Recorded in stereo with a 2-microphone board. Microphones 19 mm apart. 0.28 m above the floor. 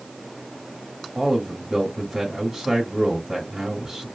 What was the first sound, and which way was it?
A man speaking, 25° right (ahead or behind).